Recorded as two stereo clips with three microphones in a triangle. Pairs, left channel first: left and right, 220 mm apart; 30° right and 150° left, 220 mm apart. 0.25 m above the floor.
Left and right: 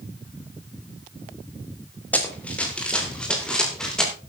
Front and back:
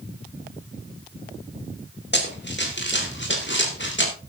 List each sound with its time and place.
2.1 s running footsteps: 5° left, 4.5 m